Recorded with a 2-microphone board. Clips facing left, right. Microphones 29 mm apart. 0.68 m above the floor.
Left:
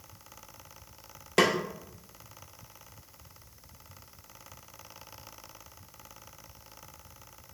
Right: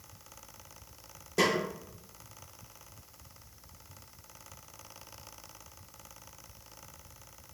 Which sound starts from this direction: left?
A snare drum, at 1.4 s.